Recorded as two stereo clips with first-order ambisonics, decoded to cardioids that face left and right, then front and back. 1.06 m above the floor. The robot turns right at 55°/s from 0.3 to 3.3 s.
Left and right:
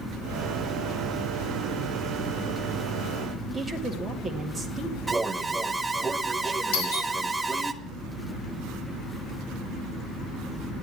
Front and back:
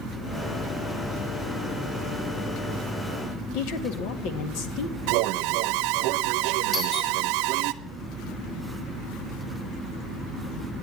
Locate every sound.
3.5 s a woman speaking: 10° right, 1.9 m
5.1 s an alarm: 170° right, 0.8 m
6.7 s a doorbell: 75° left, 3.5 m